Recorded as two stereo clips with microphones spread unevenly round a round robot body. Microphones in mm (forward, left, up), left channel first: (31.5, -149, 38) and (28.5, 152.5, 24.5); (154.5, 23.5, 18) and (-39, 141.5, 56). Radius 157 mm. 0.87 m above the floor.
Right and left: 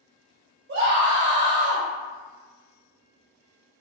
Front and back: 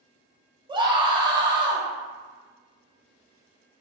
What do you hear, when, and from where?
0.7 s a scream: 75° left, 1.1 m